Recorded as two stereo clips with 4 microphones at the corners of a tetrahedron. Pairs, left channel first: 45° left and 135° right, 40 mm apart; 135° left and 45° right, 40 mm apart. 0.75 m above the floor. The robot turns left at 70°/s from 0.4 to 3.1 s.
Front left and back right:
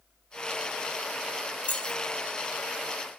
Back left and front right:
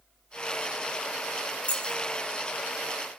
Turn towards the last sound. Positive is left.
turn(degrees=-10)